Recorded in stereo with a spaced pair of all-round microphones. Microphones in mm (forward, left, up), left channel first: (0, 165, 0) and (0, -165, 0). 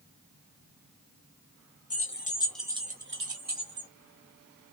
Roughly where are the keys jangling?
Left.